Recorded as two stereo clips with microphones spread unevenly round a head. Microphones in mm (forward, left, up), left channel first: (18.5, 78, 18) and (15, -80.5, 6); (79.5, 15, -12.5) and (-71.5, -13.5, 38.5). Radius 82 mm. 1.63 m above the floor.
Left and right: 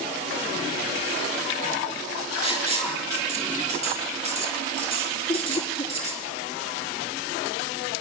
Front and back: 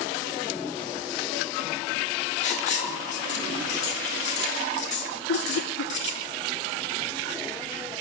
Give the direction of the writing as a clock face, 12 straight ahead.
1 o'clock.